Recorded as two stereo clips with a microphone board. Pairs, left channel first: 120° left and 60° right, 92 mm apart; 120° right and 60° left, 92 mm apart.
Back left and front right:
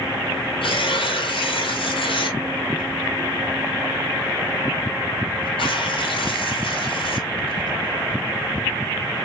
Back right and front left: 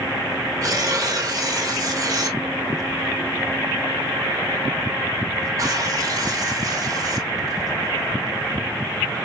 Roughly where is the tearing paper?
Left.